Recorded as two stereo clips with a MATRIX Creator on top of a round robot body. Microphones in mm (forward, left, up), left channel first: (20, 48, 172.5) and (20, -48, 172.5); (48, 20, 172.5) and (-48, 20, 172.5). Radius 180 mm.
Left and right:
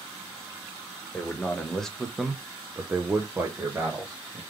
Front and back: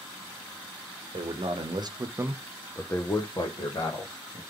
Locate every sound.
1.1 s a man speaking: 165° left, 1.7 m; by 4.4 s 25° right, 2 m